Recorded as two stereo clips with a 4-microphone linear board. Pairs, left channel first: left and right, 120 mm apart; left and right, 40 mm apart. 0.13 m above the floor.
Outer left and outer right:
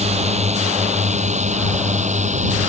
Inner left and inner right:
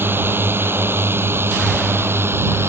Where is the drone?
60° right (ahead or behind); by 2.7 s 70° right (ahead or behind).